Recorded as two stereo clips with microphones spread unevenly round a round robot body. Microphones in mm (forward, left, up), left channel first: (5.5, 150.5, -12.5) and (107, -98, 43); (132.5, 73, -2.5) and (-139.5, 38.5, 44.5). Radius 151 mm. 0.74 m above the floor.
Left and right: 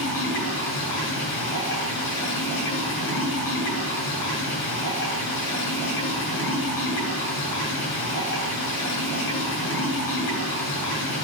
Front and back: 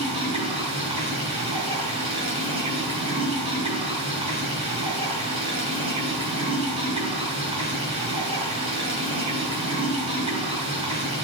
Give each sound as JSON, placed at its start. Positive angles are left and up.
{"t": 0.0, "sound": "running water", "azimuth_deg": 115, "distance_m": 7.0}